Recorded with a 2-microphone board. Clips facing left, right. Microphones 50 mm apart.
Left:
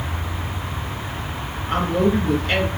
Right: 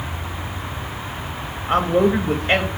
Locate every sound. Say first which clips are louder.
1.7 s a man speaking: right 3 dB; 25° right (ahead or behind), 0.9 m